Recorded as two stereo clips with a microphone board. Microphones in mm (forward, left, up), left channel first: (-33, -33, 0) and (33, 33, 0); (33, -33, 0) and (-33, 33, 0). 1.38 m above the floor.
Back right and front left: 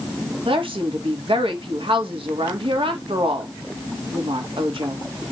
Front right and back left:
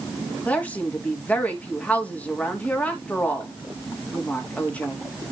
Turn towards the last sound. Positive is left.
turn(degrees=30)